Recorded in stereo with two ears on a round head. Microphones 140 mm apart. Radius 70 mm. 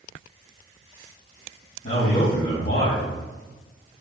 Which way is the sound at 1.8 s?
55° left (ahead or behind).